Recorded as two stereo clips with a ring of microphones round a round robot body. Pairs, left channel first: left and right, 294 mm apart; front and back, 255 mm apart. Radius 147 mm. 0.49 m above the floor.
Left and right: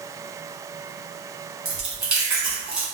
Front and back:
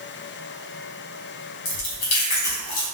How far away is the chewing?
About 1.4 m.